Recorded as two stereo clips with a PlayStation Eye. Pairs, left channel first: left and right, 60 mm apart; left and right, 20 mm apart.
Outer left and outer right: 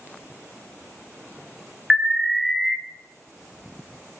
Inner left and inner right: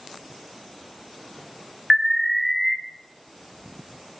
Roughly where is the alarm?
Centre.